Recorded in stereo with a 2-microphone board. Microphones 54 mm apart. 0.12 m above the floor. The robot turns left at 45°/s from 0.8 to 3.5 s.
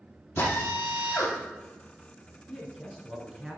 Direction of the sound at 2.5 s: 5° left (ahead or behind).